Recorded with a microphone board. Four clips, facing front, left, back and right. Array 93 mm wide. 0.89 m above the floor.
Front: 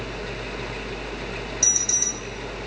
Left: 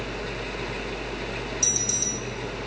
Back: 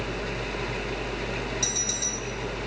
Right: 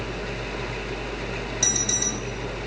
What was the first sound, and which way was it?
An alarm, 80° right.